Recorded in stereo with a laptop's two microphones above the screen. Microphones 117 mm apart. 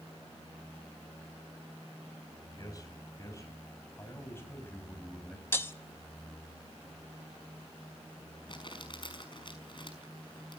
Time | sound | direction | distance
2.6 | a man speaking | 30° left (ahead or behind) | 8.5 m
5.5 | breaking glass | 20° left (ahead or behind) | 0.8 m
8.5 | crumpling | 45° left (ahead or behind) | 5.5 m